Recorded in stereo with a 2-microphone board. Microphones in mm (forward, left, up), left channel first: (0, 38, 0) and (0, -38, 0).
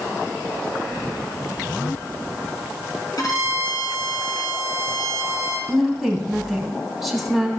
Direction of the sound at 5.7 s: Centre (ahead or behind).